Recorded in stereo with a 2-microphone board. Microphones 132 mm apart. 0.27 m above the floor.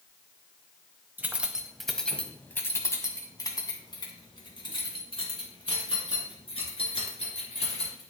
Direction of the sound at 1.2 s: 15° right (ahead or behind).